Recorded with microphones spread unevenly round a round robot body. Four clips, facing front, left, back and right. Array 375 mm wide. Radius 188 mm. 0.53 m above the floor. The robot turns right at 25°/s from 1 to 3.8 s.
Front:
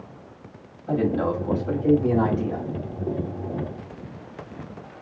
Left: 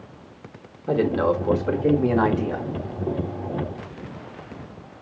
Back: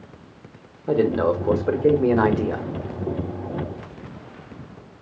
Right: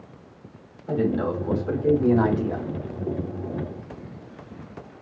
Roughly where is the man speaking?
Behind left.